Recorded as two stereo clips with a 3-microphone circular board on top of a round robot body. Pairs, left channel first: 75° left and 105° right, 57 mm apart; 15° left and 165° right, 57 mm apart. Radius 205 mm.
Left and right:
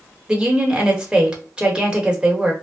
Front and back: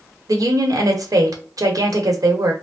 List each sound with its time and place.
0.3 s a woman speaking: straight behind, 1.2 m